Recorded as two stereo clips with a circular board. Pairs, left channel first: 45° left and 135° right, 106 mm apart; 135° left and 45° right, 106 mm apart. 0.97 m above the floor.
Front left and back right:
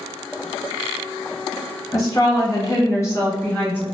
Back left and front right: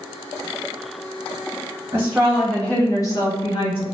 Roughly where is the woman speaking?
Ahead.